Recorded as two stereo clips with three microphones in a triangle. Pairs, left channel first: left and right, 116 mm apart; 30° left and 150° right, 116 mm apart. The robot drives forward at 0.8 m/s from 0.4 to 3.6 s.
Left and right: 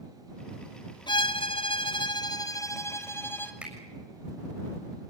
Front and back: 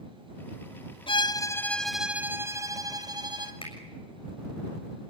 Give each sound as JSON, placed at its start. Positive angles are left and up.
{"t": 1.1, "sound": "a violin", "azimuth_deg": 55, "distance_m": 0.8}
{"t": 3.6, "sound": "a finger snap", "azimuth_deg": -10, "distance_m": 6.5}